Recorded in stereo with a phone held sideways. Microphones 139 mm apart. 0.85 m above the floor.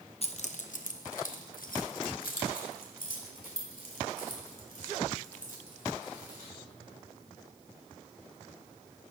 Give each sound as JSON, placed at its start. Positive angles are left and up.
{"t": 0.2, "sound": "keys jangling", "side_deg": 45, "distance_m": 0.6}